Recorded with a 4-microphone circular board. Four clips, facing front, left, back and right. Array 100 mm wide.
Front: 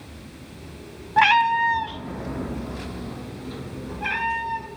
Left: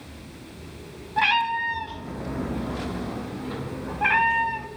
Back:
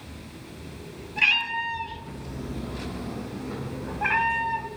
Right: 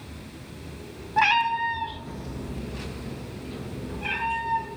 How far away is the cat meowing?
About 1.2 m.